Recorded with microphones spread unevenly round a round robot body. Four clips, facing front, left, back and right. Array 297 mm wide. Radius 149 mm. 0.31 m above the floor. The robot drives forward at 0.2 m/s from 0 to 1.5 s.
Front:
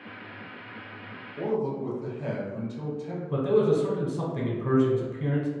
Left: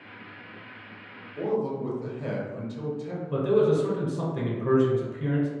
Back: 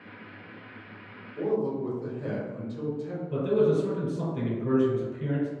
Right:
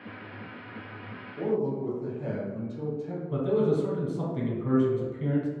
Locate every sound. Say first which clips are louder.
1.4 s a man speaking: even, back 1 dB; 115° left, 1.0 m; by 3.2 s 120° left, 1.0 m
3.3 s a man speaking: left 3 dB, front 1 dB; 25° left, 0.9 m